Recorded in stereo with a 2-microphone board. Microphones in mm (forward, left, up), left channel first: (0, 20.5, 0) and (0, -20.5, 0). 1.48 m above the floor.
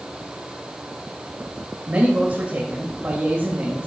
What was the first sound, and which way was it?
A man speaking, 40° right (ahead or behind).